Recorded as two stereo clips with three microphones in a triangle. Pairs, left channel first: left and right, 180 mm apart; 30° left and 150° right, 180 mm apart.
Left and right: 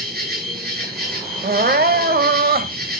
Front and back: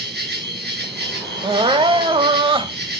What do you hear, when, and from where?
0.0 s an insect: 120° right, 3.5 m
1.4 s crying: 90° right, 0.7 m